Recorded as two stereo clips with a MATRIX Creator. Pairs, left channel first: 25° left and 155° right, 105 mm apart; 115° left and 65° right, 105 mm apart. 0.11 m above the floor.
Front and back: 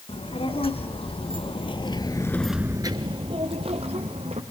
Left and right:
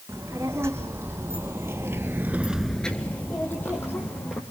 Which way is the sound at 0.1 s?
Straight ahead.